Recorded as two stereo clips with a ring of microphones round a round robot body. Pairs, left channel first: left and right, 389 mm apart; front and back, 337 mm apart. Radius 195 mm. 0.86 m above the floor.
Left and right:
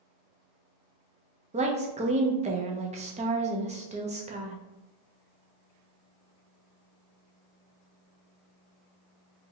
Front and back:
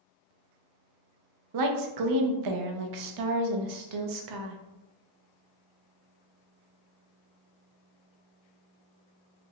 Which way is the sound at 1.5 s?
160° right.